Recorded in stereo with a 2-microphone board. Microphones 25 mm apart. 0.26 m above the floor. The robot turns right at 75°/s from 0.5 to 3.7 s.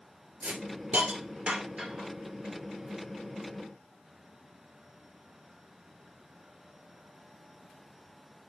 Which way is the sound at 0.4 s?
50° right (ahead or behind).